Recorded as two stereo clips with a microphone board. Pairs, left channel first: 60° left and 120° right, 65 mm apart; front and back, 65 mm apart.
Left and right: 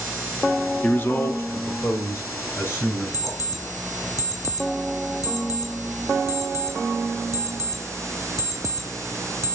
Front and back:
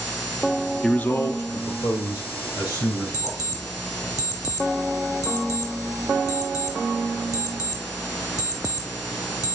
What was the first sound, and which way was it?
A man speaking, 80° left.